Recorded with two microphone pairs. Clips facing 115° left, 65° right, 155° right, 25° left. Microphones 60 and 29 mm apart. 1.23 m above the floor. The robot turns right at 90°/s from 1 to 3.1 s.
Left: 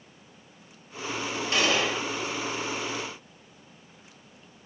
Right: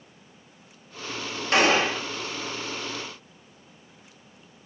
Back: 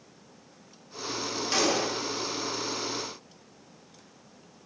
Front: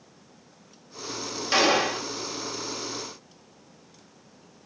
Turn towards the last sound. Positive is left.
turn(degrees=100)